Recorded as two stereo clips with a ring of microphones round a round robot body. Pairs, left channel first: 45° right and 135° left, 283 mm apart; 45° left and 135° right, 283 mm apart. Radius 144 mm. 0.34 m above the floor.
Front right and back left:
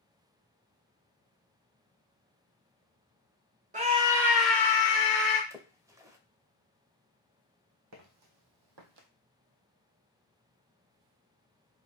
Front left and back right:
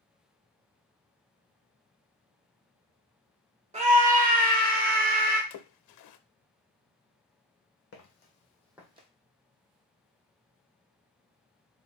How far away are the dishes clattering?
No dishes clattering in this recording.